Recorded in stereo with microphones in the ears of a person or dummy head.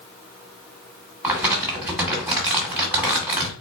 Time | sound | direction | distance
1.2 | crumpling | 5° right (ahead or behind) | 1.6 m